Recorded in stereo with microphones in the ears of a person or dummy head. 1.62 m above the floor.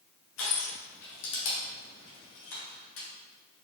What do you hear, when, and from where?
0.4 s crushing: 75° left (ahead or behind), 2.5 m